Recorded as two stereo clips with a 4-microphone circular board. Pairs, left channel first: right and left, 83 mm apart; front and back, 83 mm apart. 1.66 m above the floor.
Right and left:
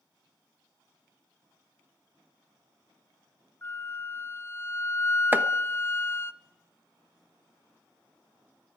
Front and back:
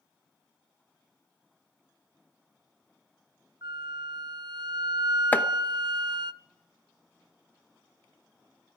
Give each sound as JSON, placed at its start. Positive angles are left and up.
{"t": 3.6, "sound": "a flute", "azimuth_deg": -150, "distance_m": 0.5}
{"t": 5.3, "sound": "chopping", "azimuth_deg": 50, "distance_m": 1.0}